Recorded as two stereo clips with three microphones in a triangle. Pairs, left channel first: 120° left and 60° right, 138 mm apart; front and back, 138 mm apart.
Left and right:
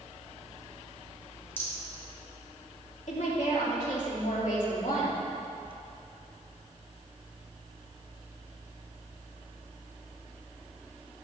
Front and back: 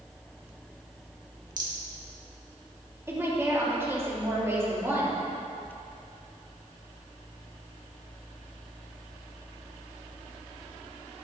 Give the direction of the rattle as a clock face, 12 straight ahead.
6 o'clock.